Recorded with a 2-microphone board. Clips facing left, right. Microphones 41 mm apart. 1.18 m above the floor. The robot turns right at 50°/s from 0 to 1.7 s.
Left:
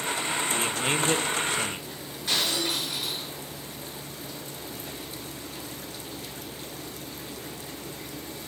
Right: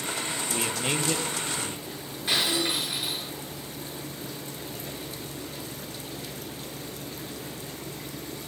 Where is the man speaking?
10° right, 0.7 m; by 1.9 s 50° left, 0.7 m.